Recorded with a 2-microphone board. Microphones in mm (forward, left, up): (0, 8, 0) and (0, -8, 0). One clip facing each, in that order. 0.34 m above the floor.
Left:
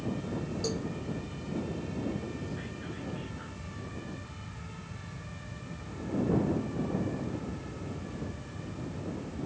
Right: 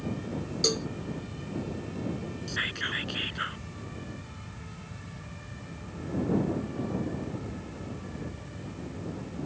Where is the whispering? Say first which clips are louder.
Right 9 dB; 60° right (ahead or behind).